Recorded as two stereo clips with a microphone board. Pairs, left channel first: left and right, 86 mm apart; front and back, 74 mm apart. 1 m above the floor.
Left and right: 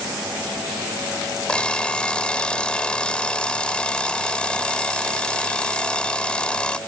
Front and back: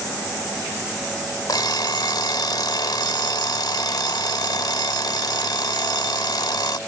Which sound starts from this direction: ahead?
An alarm clock, at 1.5 s.